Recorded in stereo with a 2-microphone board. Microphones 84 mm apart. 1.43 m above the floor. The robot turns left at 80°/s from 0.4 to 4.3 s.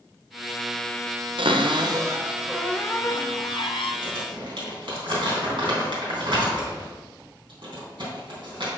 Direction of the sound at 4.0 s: 60° right (ahead or behind).